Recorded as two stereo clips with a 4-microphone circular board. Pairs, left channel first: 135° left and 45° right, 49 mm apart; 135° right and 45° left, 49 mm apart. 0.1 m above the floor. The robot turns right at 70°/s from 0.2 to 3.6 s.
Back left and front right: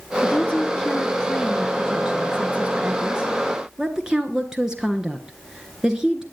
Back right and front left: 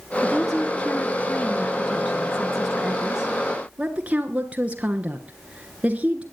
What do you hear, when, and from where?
0.2 s a woman speaking: 140° left, 1.2 m; by 6.2 s 20° left, 1.2 m